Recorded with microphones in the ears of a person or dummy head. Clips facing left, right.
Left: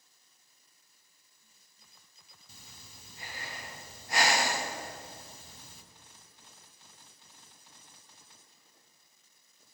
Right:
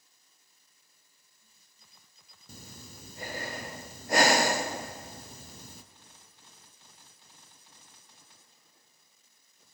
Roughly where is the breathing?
Right.